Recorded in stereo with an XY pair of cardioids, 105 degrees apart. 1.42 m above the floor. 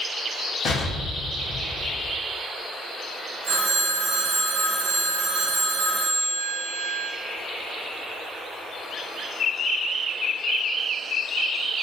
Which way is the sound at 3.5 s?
45° right.